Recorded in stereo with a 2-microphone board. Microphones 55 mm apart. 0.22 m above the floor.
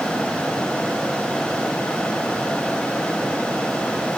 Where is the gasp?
I don't hear a gasp.